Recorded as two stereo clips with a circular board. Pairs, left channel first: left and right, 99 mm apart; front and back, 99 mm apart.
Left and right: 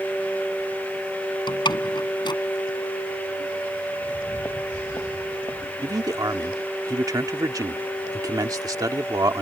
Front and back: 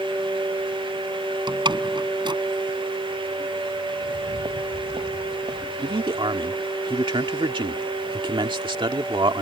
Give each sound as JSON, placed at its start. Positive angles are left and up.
{"t": 1.5, "sound": "a door slam", "azimuth_deg": 135}
{"t": 4.0, "sound": "footsteps", "azimuth_deg": 150}
{"t": 5.8, "sound": "a man speaking", "azimuth_deg": -145}